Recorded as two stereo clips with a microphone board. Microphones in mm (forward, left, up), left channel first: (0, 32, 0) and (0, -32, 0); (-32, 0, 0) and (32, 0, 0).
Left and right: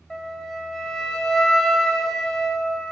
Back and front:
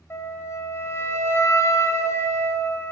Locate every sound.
0.1 s a flute: 170° left, 1.0 m